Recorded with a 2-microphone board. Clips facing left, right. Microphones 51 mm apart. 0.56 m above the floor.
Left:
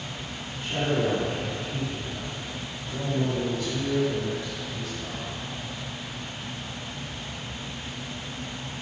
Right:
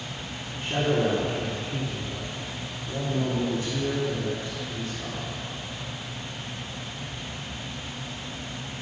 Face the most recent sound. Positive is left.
turn(degrees=-30)  # may be behind; listen again after turning